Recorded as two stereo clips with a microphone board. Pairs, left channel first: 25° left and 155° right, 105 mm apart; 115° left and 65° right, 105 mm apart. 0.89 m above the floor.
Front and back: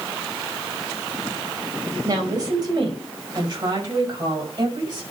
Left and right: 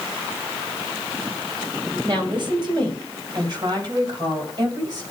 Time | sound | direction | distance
2.0 | a woman speaking | 105° right | 4.5 m